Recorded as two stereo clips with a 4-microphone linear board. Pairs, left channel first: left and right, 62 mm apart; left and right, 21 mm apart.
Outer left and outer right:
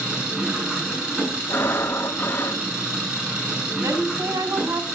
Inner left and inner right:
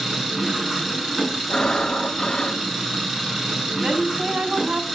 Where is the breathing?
35° left (ahead or behind), 1.2 m.